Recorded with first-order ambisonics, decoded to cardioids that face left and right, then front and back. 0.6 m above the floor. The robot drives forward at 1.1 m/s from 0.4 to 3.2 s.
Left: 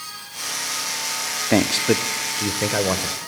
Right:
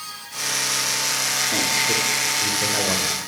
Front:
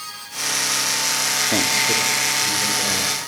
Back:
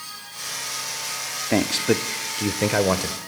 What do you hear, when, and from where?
1.5 s a man speaking: 100° left, 1.0 m; by 3.2 s 160° left, 2 m